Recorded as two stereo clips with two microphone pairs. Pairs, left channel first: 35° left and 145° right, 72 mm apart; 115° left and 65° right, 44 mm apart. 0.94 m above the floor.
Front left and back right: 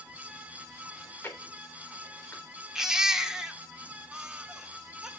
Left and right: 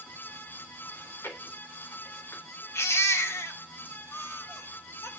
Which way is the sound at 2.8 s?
135° left.